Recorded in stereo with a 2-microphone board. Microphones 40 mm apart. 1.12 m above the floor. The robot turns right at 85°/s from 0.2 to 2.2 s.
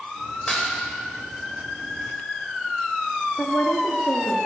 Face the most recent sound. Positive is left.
turn(degrees=70)  # may be behind; listen again after turning